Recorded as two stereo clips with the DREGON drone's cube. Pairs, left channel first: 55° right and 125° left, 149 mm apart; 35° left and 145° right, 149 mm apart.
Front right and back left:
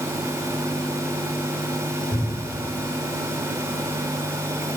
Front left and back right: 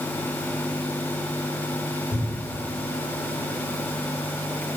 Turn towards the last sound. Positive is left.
turn(degrees=-85)